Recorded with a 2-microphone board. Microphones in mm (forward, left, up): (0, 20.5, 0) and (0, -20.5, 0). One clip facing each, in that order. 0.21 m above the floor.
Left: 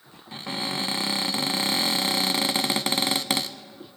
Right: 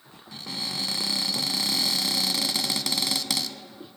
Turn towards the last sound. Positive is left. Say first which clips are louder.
# left 4 dB
turn(degrees=35)  # may be behind; listen again after turning